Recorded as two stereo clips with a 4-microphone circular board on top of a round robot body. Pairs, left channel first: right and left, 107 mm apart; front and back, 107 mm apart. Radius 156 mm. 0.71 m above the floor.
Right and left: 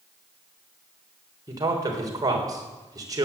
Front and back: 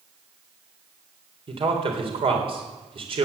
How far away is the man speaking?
About 3.5 m.